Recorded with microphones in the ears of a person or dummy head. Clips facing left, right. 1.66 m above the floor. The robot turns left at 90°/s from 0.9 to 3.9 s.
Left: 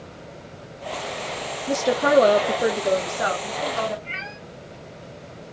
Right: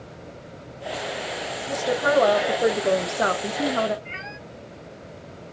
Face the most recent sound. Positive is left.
turn(degrees=5)  # may be behind; listen again after turning